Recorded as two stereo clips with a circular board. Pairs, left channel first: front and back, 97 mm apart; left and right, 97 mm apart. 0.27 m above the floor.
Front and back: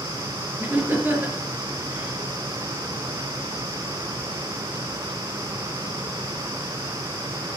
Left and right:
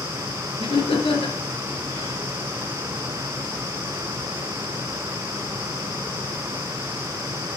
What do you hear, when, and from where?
0.6 s laughter: 110° left, 4 m